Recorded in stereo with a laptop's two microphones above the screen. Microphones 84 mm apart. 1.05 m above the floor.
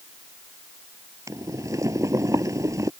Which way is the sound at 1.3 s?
40° right (ahead or behind).